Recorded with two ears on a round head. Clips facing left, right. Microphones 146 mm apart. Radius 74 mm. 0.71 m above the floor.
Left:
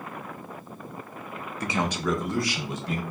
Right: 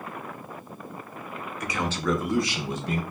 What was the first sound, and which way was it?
A man speaking, 30° left (ahead or behind).